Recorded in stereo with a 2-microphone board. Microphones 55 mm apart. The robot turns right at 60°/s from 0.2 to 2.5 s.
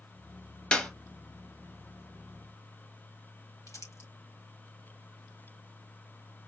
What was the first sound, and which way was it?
A clap, 20° left (ahead or behind).